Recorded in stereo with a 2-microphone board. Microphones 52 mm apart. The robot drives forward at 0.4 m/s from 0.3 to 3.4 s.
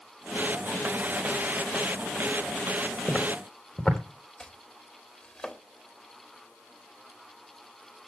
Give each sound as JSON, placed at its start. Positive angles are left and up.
{"t": 3.1, "sound": "footsteps", "side_deg": 25, "distance_m": 3.5}
{"t": 4.4, "sound": "chopping", "side_deg": 25, "distance_m": 3.5}